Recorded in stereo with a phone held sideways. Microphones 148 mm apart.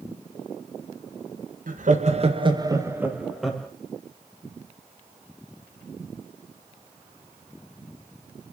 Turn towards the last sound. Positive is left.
turn(degrees=5)  # may be behind; listen again after turning